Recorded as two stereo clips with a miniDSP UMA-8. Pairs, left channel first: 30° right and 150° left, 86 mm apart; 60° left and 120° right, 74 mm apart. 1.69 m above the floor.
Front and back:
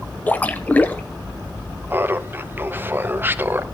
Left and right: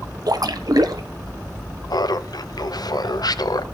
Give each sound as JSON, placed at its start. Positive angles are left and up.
{"t": 0.3, "sound": "a splash", "azimuth_deg": -100, "distance_m": 0.9}
{"t": 1.9, "sound": "laughter", "azimuth_deg": 85, "distance_m": 0.9}